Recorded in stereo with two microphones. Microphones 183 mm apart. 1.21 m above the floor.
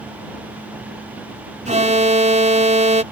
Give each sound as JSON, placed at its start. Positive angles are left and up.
{"t": 1.6, "sound": "an alarm", "side_deg": -40}